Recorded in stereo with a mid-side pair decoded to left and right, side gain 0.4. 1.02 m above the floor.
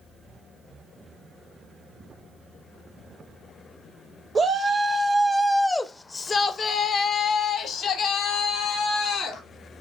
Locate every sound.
4.3 s a shout: 45° right, 0.9 m; by 9.4 s 80° left, 2 m